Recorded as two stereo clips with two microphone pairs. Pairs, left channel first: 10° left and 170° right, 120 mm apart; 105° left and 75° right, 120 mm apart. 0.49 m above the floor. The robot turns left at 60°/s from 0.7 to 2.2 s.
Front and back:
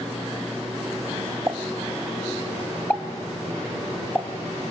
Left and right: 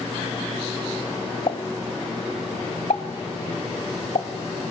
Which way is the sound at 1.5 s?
125° left.